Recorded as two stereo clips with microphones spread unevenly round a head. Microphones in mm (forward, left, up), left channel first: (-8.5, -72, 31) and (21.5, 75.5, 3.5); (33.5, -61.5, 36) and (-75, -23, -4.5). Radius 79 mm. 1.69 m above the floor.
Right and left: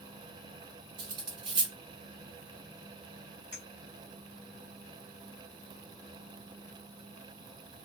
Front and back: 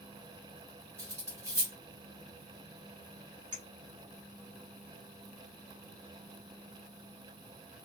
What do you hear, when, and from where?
1.0 s cutlery clinking: 80° left, 0.8 m
3.5 s a clink: straight behind, 1.4 m